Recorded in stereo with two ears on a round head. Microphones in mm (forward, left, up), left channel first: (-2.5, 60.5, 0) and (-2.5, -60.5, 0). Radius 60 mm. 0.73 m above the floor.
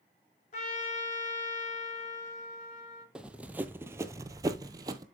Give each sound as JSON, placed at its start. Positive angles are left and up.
{"t": 0.5, "sound": "a trumpet", "side_deg": 60, "distance_m": 2.0}
{"t": 3.1, "sound": "running footsteps", "side_deg": -10, "distance_m": 1.0}